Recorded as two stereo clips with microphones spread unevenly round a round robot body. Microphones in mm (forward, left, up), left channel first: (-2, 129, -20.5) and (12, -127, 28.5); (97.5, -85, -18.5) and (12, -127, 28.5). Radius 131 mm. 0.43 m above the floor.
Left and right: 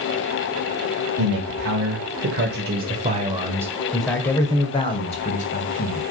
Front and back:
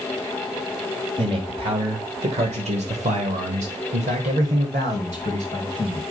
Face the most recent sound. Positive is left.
turn(degrees=140)